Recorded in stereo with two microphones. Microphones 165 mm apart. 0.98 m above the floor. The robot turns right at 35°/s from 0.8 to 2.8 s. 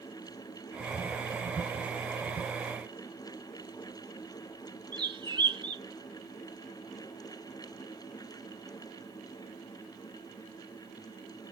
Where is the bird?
30° right (ahead or behind), 1.0 m.